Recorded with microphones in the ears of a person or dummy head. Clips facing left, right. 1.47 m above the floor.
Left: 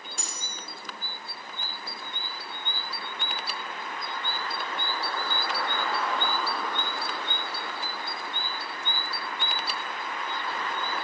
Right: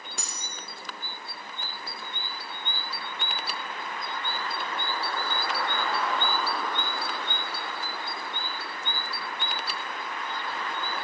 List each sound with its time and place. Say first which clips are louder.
0.2 s cutlery clinking: even; 40° right (ahead or behind), 0.7 m